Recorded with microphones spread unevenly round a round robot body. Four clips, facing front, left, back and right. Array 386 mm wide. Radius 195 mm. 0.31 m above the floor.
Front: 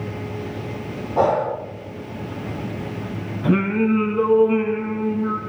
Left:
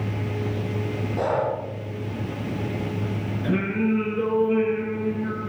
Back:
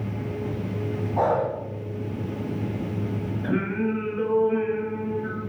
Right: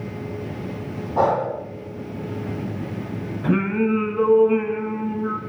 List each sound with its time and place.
1.2 s breathing: 35° right, 7 m
3.4 s singing: 25° right, 4.5 m